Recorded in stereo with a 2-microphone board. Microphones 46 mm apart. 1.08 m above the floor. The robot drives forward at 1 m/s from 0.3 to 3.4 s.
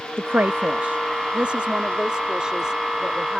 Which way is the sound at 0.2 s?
55° right (ahead or behind).